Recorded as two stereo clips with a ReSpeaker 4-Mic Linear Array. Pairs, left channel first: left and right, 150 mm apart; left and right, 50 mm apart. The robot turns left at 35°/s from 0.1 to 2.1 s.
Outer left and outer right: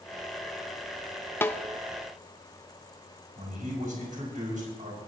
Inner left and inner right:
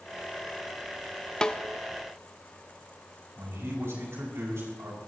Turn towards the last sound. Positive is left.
turn(degrees=-60)  # may be behind; listen again after turning